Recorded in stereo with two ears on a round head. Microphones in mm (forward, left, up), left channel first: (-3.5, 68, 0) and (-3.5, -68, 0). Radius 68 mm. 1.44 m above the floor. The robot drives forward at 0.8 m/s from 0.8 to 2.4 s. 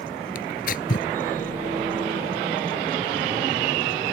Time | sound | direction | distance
0.3 | tearing paper | 65° left (ahead or behind) | ?